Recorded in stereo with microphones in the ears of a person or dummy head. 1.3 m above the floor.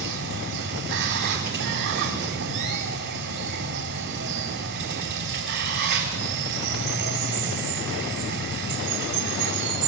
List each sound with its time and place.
0.0 s running water: 55° right (ahead or behind), 4.5 m